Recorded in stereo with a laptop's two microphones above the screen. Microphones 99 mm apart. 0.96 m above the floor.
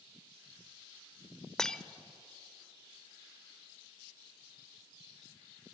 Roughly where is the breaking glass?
Centre.